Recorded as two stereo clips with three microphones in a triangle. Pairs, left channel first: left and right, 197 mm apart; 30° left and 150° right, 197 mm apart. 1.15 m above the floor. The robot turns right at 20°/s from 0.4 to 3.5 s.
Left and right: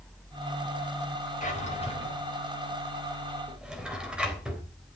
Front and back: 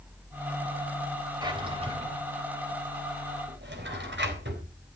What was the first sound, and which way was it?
A drawer, 140° left.